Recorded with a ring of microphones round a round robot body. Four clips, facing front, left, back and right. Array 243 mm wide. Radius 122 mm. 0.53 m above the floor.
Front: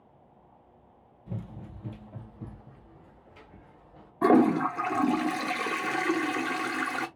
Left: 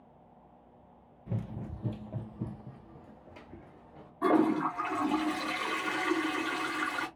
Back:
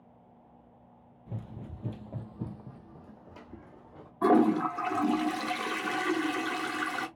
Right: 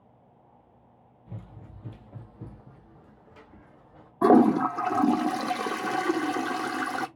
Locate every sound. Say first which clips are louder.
1.3 s running footsteps: left 7 dB, front 2 dB; 70° left, 0.5 m; by 4.1 s 160° left, 1.8 m
4.2 s a toilet flushing: right 7 dB, front 2 dB; 70° right, 0.6 m